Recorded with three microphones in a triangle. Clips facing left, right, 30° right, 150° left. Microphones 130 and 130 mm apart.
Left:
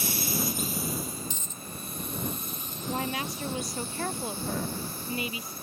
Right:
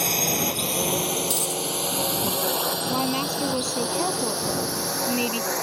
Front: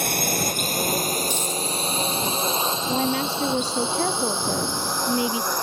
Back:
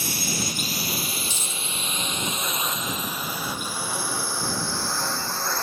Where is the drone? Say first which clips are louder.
Right 6 dB, front 5 dB; 65° right; by 5.6 s 105° right.